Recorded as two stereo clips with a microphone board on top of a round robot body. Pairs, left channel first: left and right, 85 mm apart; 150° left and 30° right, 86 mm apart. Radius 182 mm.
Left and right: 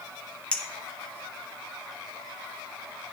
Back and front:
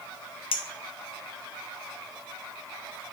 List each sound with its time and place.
0.5 s a clink: 165° left, 1.2 m